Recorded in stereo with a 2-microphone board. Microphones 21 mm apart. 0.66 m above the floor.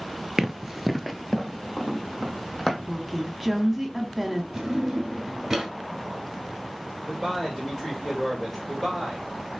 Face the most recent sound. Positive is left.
turn(degrees=25)  # may be behind; listen again after turning